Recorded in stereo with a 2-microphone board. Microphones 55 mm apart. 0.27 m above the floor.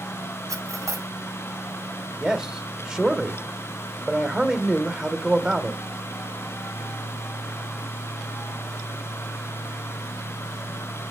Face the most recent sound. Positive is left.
turn(degrees=-15)  # may be behind; listen again after turning